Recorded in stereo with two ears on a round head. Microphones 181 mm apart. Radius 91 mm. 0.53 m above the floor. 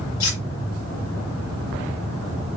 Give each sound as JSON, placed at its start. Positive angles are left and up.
{"t": 0.2, "sound": "cutlery clinking", "side_deg": 70, "distance_m": 6.5}